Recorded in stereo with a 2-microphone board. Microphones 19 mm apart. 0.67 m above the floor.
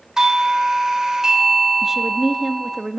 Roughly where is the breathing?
I don't hear breathing.